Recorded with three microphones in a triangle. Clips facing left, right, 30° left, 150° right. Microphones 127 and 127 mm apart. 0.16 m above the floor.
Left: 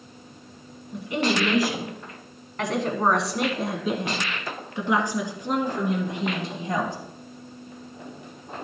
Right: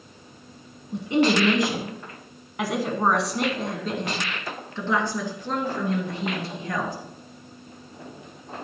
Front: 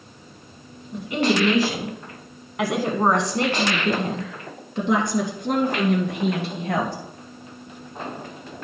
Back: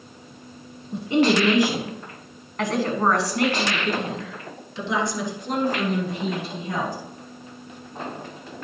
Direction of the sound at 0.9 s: 125° right.